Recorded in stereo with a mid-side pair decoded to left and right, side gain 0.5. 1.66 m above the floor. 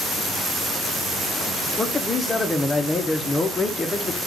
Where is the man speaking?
25° left, 0.8 m.